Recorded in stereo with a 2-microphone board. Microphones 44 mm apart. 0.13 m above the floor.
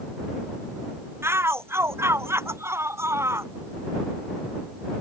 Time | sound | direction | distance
1.2 | a shout | 70° right (ahead or behind) | ?